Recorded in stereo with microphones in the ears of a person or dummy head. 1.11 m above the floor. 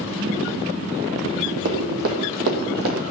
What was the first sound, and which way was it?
Running footsteps, 55° right (ahead or behind).